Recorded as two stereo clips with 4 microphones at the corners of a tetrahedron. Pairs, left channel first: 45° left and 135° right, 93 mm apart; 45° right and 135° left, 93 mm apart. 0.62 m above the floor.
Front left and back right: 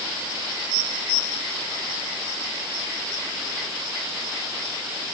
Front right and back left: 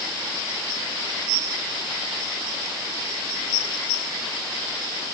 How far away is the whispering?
No whispering in this recording.